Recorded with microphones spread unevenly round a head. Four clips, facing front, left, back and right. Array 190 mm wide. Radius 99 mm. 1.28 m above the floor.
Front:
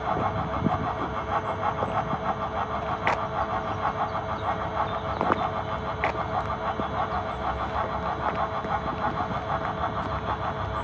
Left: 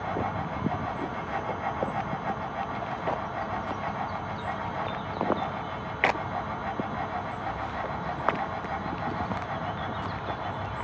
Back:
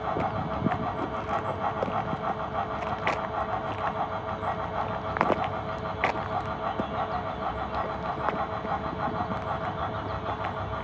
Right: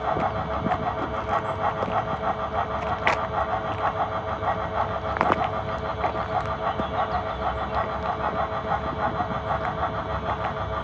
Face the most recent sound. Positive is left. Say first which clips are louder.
# right 5 dB, front 2 dB
turn(degrees=-80)